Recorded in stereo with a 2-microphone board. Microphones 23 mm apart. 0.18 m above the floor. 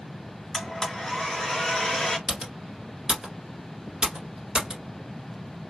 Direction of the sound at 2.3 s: 40° right (ahead or behind).